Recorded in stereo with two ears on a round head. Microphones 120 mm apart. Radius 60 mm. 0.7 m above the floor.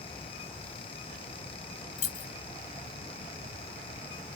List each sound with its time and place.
2.0 s keys jangling: 60° left (ahead or behind), 0.8 m